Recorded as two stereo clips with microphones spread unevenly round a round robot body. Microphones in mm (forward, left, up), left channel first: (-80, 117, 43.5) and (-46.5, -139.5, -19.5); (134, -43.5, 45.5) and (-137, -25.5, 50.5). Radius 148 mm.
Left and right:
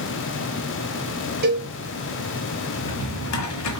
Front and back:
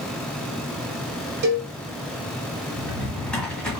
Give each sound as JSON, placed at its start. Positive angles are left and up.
{"t": 1.4, "sound": "a cowbell", "azimuth_deg": -130, "distance_m": 2.5}
{"t": 2.8, "sound": "a drawer", "azimuth_deg": 85, "distance_m": 1.4}